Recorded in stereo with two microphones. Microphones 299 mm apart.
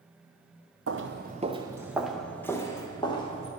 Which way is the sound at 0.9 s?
50° right (ahead or behind).